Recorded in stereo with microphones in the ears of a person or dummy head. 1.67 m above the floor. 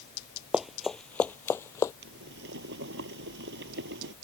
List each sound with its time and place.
0.5 s running footsteps: centre (ahead or behind); by 1.9 s 20° left (ahead or behind)
2.0 s boiling: 60° right (ahead or behind)